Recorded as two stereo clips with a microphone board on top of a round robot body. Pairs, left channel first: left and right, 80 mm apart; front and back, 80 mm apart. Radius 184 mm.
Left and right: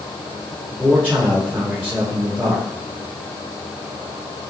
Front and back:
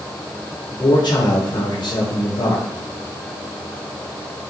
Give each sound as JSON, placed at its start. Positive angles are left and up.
{"t": 0.7, "sound": "a man speaking", "azimuth_deg": -20, "distance_m": 3.5}